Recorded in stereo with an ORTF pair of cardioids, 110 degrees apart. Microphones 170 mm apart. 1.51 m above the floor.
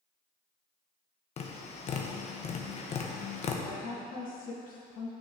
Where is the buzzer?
No buzzer in this recording.